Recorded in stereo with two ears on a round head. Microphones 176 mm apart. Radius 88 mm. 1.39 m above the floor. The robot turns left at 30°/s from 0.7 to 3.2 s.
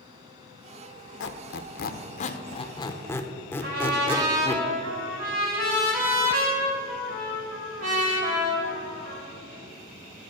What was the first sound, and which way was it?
A squeak, 60° left (ahead or behind).